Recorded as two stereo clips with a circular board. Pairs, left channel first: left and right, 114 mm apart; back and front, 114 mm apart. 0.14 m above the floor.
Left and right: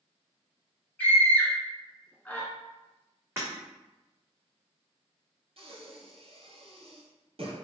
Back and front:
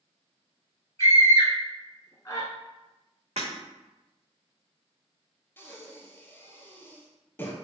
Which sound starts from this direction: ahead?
Breaking glass, at 3.4 s.